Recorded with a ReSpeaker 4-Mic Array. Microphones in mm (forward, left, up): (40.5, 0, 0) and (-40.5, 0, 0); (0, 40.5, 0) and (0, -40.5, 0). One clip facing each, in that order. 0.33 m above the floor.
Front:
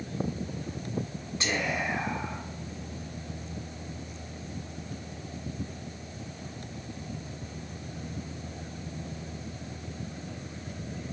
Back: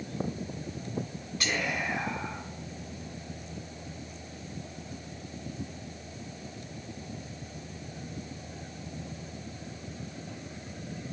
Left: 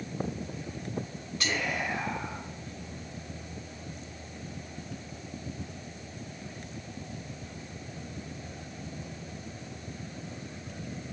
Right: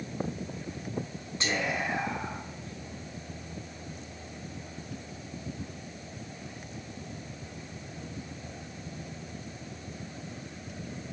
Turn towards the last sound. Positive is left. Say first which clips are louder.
# front 1 dB, right 1 dB
turn(degrees=-50)